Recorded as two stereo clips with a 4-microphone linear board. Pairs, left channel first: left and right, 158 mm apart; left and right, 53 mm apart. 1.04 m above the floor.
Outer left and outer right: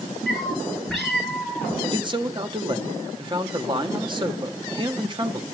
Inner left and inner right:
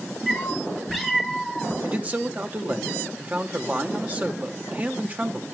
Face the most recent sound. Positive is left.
turn(degrees=-30)  # may be behind; listen again after turning